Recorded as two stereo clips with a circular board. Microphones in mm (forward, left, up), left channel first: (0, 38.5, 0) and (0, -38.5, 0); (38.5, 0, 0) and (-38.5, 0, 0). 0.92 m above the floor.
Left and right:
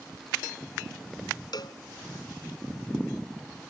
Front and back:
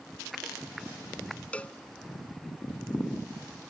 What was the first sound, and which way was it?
A cowbell, 75° left.